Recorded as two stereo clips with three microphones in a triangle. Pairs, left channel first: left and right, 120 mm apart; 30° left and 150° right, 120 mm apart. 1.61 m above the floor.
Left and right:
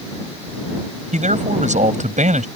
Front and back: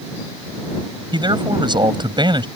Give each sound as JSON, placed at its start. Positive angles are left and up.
{"t": 1.1, "sound": "a man speaking", "azimuth_deg": -100}